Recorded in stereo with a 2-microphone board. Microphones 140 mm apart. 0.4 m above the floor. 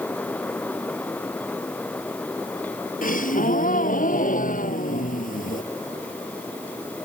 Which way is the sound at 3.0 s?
75° left (ahead or behind).